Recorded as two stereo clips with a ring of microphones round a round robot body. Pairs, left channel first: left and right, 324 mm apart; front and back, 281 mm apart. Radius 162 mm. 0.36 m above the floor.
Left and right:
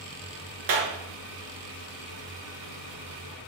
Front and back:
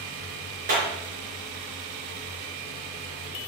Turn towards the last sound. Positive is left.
turn(degrees=-115)